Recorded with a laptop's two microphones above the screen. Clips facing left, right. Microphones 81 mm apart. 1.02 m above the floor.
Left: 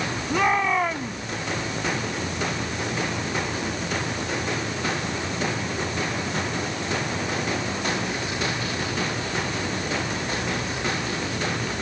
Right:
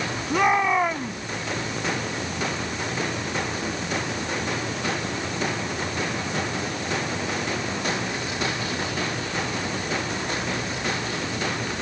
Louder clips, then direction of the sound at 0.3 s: Right 2 dB; 5° right (ahead or behind).